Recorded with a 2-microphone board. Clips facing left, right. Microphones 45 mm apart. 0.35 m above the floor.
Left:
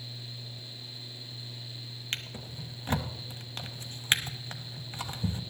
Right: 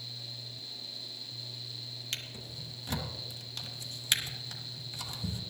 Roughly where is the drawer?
Left.